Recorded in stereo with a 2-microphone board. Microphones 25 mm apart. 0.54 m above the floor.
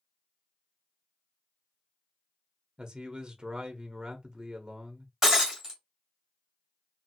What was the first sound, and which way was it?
A man speaking, 25° right (ahead or behind).